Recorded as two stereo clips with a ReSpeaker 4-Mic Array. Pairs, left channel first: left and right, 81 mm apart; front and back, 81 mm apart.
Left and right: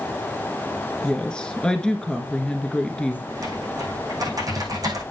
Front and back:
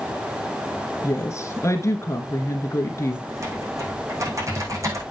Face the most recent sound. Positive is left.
turn(degrees=-130)